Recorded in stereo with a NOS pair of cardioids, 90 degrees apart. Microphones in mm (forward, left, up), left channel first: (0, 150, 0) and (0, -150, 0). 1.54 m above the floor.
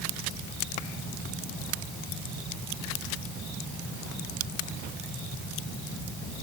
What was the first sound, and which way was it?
Only background noise.